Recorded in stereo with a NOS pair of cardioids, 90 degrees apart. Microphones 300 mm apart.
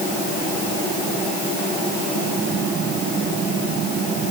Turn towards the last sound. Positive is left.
No sound to turn to.